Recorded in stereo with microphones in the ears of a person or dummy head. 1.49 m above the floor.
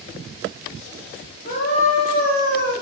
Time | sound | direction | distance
1.4 | a scream | 45° left (ahead or behind) | 2.5 m